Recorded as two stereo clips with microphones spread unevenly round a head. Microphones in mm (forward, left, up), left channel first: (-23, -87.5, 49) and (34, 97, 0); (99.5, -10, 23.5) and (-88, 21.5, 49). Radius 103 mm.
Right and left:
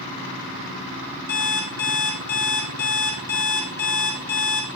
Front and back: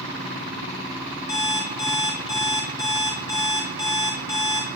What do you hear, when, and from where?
1.3 s an alarm clock: 85° right, 1.3 m